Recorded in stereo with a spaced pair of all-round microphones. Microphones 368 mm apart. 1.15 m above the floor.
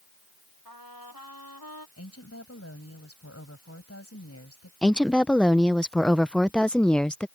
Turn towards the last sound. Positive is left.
turn(degrees=5)  # may be behind; listen again after turning